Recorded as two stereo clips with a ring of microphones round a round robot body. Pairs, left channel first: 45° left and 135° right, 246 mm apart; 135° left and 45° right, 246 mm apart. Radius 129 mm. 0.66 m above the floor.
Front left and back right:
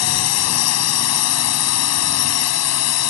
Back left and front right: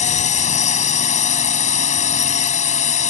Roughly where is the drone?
Left.